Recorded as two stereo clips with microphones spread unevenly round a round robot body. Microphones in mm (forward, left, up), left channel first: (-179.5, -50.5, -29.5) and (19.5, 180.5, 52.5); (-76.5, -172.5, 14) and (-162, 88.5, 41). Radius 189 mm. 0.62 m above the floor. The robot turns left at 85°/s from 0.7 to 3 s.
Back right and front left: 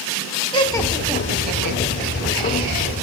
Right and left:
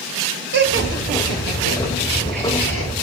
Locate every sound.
0.5 s laughter: 155° left, 4 m; by 2.9 s 30° right, 4 m